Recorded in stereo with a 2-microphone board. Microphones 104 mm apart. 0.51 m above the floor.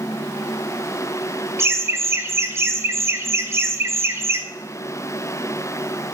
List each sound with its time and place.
1.6 s laughter: 25° right (ahead or behind), 0.7 m